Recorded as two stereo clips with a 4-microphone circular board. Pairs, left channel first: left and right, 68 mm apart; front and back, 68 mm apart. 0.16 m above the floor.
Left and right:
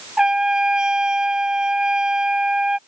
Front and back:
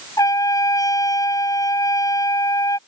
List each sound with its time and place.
0.2 s a trumpet: 10° right